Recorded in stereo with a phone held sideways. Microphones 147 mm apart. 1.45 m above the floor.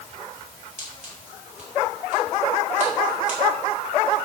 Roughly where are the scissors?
Right.